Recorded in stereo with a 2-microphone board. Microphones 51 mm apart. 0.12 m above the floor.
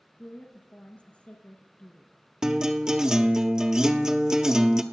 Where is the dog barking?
No dog barking in this recording.